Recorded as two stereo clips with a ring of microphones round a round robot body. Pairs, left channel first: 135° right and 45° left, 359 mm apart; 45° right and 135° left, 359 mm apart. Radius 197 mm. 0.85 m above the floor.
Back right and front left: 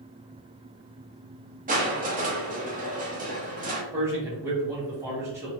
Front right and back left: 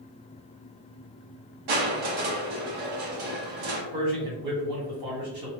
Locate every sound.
1.7 s crushing: 115° left, 1.0 m
3.9 s a man speaking: 130° left, 1.7 m